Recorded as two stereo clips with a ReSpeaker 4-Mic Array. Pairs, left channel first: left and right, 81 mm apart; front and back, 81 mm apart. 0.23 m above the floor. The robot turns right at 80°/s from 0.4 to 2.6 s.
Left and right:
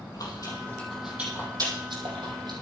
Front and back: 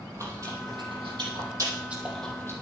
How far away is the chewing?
About 4.5 m.